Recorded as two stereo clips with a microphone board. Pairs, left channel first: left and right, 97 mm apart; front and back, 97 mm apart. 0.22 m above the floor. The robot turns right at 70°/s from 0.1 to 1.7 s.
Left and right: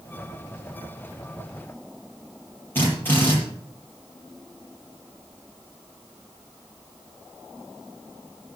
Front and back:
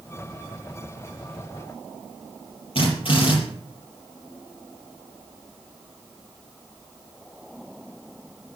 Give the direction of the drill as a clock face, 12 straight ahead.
11 o'clock.